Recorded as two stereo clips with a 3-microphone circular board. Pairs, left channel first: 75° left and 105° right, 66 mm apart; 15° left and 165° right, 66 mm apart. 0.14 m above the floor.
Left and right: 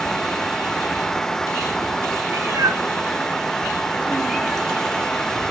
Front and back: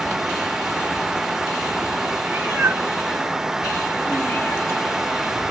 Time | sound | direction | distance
2.3 | a cat meowing | 110° right | 1.4 m